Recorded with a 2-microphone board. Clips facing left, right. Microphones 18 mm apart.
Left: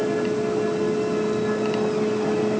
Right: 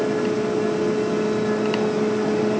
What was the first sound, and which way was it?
Only background noise.